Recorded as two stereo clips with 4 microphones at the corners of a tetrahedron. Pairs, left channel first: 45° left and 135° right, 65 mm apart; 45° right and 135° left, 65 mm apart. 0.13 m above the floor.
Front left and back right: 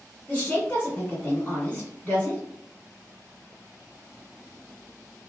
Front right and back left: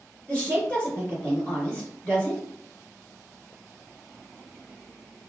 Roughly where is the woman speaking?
Ahead.